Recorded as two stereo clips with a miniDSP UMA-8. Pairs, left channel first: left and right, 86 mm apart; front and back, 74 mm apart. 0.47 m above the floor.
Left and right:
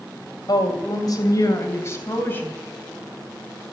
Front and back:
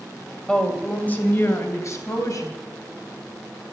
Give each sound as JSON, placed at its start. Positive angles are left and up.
{"t": 0.5, "sound": "a woman speaking", "azimuth_deg": 80, "distance_m": 2.5}